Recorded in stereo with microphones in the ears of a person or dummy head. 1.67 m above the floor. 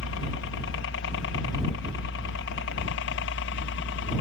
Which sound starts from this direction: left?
A helicopter, at 0.0 s.